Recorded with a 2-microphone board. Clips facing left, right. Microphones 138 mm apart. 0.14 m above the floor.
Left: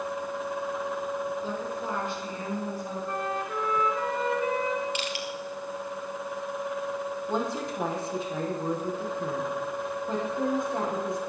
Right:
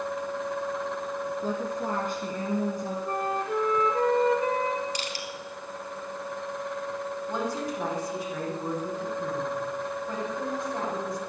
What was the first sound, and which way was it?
A woman speaking, 45° right (ahead or behind).